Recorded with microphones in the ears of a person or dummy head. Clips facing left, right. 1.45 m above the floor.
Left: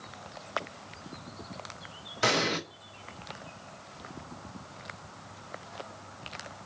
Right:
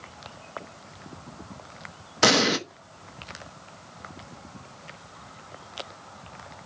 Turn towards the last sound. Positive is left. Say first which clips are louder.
# right 7 dB
turn(degrees=-70)  # may be behind; listen again after turning